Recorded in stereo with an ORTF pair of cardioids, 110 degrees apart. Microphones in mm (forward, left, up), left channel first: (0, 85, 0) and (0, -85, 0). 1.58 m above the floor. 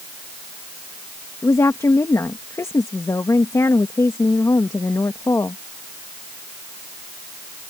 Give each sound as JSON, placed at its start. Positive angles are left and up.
{"t": 1.4, "sound": "a woman speaking", "azimuth_deg": 20}